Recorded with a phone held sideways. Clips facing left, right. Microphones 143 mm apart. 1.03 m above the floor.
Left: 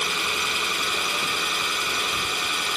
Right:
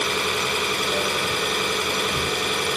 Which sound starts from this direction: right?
An engine running, at 0.0 s.